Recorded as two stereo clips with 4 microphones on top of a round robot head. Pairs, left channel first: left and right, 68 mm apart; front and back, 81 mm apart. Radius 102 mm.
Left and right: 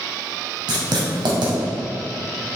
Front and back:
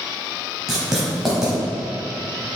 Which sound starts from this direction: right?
Writing, at 0.7 s.